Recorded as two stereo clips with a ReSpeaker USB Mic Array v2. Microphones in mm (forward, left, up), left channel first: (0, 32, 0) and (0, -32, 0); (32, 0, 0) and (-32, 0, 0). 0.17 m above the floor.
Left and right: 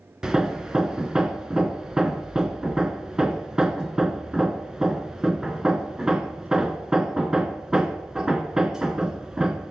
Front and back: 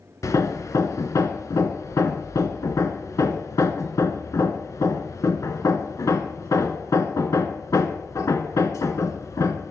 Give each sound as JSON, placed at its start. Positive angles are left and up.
{"t": 0.2, "sound": "hammering", "azimuth_deg": -10, "distance_m": 0.6}